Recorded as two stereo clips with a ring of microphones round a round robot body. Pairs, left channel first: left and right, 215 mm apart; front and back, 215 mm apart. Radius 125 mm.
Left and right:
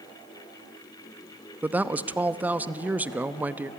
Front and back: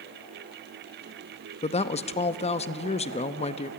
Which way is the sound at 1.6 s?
15° right.